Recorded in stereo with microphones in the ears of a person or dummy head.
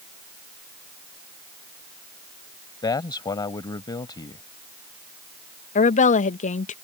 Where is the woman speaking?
40° left (ahead or behind).